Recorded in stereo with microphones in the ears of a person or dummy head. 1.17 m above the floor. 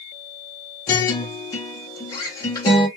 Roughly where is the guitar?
Left.